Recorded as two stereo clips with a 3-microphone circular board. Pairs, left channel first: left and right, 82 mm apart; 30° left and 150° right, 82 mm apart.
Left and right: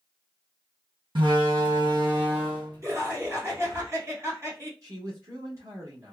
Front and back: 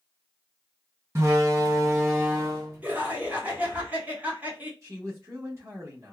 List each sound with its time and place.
1.1 s a door slam: 100° right, 1.8 m
2.8 s laughter: 95° right, 1.6 m
4.8 s a man speaking: 115° right, 1.0 m